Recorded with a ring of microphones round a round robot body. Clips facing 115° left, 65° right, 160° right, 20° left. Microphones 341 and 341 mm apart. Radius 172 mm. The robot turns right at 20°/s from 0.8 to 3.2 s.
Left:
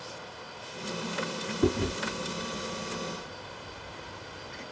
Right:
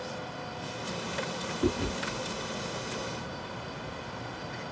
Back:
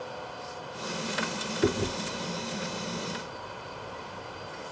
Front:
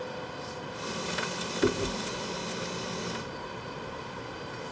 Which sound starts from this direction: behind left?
Chewing, at 1.6 s.